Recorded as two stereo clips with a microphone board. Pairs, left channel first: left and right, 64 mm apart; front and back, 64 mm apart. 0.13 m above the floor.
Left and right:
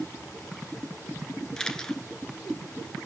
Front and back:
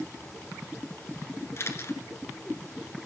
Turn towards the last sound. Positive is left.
turn(degrees=15)